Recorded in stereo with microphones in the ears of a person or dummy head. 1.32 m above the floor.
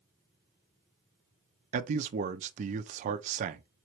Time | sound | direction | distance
1.7 | a man speaking | 40° right (ahead or behind) | 0.5 m